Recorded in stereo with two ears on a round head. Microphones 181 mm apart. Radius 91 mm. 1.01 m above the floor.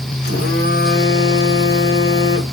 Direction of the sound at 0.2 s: 55° left (ahead or behind).